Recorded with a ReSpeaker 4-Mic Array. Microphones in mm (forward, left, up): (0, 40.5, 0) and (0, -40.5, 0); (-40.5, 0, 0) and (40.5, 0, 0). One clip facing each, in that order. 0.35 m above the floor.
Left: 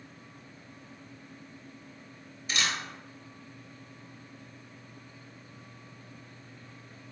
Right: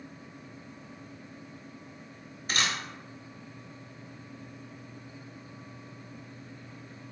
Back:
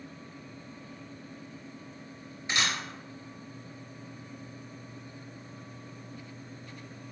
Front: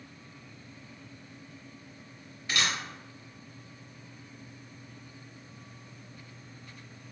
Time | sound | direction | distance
2.5 | a camera shutter | 115° right | 0.8 m